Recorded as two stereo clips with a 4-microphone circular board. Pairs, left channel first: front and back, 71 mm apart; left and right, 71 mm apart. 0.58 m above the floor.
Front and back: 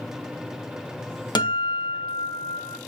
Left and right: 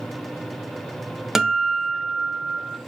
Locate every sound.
1.4 s a guitar: 5° right, 1.0 m